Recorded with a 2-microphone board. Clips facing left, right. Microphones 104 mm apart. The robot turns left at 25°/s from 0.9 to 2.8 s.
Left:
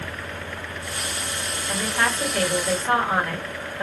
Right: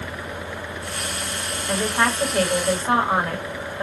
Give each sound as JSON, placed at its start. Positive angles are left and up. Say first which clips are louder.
{"t": 1.7, "sound": "a woman speaking", "louder": "right 3 dB", "side_deg": -35, "distance_m": 1.8}